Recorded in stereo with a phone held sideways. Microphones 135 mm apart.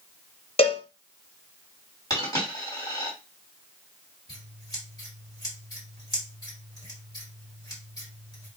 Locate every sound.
0.6 s a cowbell: 45° left (ahead or behind), 0.8 m
2.1 s a dropped coin: 30° left (ahead or behind), 2.5 m
4.3 s scissors: 25° left (ahead or behind), 2.5 m